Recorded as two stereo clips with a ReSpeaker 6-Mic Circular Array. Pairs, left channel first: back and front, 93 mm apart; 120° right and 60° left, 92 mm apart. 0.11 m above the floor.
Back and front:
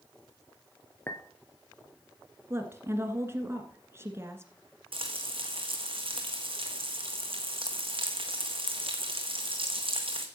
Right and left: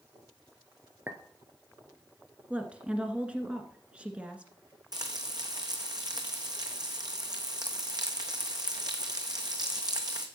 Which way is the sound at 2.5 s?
Straight ahead.